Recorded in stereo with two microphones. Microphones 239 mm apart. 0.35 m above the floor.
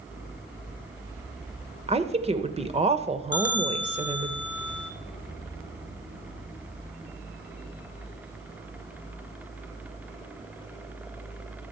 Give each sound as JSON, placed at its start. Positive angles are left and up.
{"t": 1.9, "sound": "a woman speaking", "side_deg": -25, "distance_m": 0.9}
{"t": 3.3, "sound": "a bell", "side_deg": 85, "distance_m": 0.8}